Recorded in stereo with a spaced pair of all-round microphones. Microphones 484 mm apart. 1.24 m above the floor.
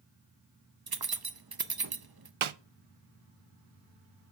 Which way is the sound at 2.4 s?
80° right.